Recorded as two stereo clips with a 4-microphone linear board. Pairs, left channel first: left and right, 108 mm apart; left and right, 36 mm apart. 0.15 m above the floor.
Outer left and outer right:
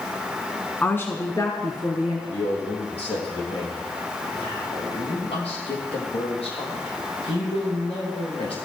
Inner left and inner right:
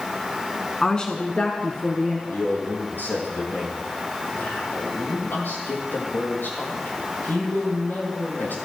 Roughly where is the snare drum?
I don't hear a snare drum.